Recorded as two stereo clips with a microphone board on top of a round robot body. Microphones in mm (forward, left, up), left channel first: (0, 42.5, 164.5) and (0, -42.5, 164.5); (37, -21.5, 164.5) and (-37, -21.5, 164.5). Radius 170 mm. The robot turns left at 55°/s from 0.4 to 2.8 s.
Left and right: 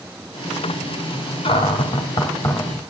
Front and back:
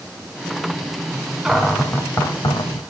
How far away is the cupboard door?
About 2 m.